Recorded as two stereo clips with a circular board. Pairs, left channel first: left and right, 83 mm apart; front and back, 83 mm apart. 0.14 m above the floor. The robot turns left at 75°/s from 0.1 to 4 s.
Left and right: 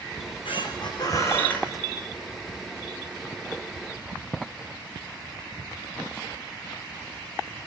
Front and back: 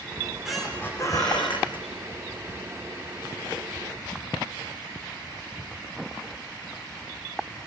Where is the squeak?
115° left, 7 m; by 1.9 s 10° right, 7 m.